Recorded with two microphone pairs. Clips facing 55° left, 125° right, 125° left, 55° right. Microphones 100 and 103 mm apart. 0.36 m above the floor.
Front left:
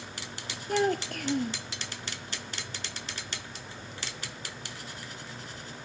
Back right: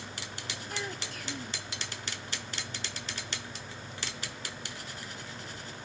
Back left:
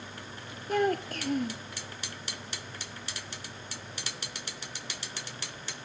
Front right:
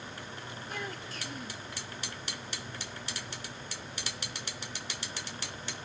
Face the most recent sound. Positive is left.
turn(degrees=85)